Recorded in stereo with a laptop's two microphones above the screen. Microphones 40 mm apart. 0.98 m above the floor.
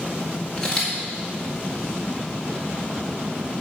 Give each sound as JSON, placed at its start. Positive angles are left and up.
{"t": 0.6, "sound": "a camera shutter", "side_deg": 25, "distance_m": 2.0}